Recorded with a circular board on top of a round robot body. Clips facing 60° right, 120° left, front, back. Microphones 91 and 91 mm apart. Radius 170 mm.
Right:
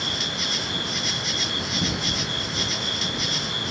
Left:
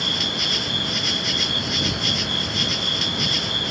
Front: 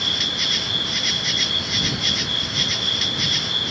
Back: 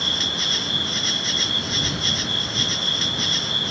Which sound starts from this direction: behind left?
An insect, at 0.0 s.